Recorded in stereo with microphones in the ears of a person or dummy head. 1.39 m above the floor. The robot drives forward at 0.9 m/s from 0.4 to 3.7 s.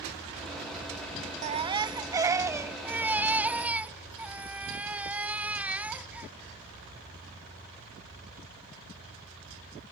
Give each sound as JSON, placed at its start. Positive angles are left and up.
{"t": 1.4, "sound": "a baby crying", "side_deg": -35}